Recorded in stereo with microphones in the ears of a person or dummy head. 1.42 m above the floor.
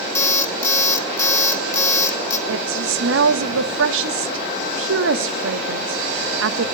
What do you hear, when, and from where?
0.1 s an alarm clock: 15° left (ahead or behind), 2.5 m
2.5 s a woman speaking: 85° right, 1.5 m